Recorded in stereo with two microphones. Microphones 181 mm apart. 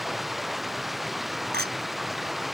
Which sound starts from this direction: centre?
Running water, at 0.0 s.